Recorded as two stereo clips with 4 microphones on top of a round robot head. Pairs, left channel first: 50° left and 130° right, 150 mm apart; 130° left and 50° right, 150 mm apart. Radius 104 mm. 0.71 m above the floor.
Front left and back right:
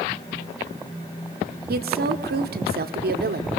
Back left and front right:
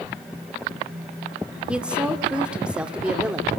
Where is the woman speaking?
135° right, 1.7 m.